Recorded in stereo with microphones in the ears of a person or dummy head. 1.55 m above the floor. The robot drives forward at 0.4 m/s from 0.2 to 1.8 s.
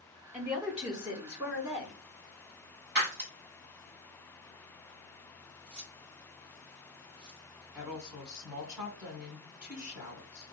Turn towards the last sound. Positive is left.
turn(degrees=-5)  # may be behind; listen again after turning